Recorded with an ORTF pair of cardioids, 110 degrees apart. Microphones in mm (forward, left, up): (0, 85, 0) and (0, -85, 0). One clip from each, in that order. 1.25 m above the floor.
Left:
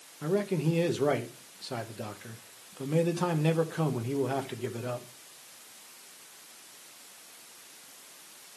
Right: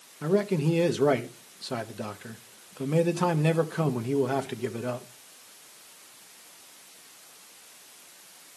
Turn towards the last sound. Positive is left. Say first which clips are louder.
# right 4 dB
turn(degrees=-20)